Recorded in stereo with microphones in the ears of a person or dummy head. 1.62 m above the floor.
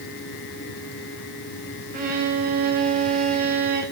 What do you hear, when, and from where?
1.9 s a violin: 45° right (ahead or behind), 0.6 m